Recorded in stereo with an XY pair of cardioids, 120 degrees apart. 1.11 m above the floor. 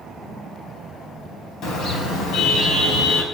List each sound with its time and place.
1.6 s a car horn: 70° left, 4 m; by 3.2 s 80° left, 4.5 m